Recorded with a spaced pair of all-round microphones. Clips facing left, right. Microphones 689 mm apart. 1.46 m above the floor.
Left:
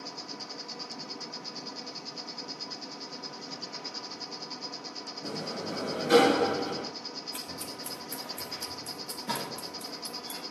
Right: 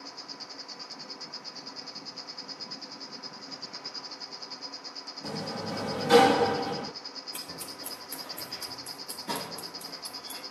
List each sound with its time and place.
0.0 s an insect: 60° left (ahead or behind), 0.8 m
5.2 s a sliding door: 30° right (ahead or behind), 0.5 m
7.3 s scissors: 20° left (ahead or behind), 3.5 m